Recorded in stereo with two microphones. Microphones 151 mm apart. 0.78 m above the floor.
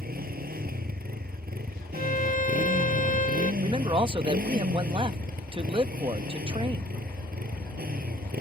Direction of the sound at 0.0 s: 85° right.